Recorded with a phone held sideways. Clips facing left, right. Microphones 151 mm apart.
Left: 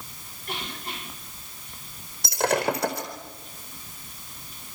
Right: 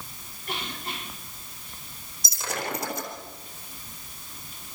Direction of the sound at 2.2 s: 65° left (ahead or behind).